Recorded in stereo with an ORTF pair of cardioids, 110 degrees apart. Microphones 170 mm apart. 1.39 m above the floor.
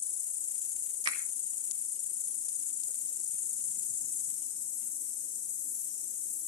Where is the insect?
45° left, 1.0 m.